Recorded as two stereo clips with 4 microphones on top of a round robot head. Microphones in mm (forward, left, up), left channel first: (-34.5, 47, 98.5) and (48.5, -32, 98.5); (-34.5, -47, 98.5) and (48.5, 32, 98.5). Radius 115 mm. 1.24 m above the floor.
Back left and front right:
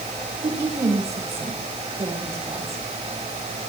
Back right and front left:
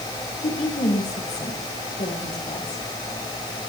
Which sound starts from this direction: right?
A woman speaking, at 0.4 s.